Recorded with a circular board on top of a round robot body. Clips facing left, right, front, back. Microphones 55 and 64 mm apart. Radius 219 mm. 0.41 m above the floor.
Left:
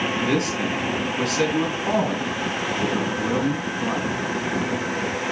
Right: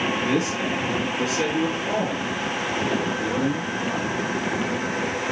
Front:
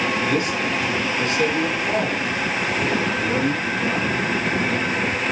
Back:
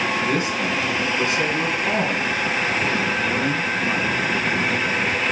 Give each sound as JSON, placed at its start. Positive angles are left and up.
{"t": 0.2, "sound": "a man speaking", "azimuth_deg": 110, "distance_m": 6.0}